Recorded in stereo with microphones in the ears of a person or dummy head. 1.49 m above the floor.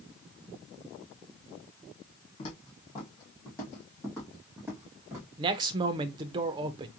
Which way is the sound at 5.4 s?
30° right (ahead or behind).